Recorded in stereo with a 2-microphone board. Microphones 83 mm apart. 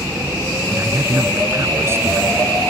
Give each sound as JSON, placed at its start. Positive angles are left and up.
{"t": 0.7, "sound": "a man speaking", "side_deg": -30}